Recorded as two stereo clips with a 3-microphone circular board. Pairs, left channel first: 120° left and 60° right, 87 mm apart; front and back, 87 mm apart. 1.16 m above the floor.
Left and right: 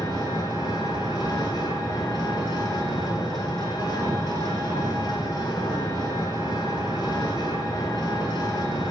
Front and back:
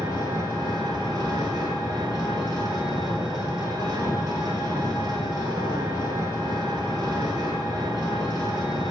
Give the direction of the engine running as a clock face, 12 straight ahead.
7 o'clock.